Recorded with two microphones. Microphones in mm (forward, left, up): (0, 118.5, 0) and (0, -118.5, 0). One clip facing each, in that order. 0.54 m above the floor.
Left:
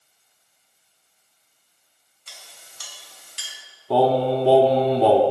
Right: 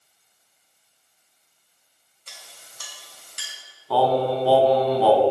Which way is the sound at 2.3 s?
55° right (ahead or behind).